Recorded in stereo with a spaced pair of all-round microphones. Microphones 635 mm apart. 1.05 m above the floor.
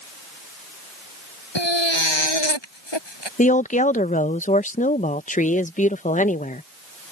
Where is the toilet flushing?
I don't hear a toilet flushing.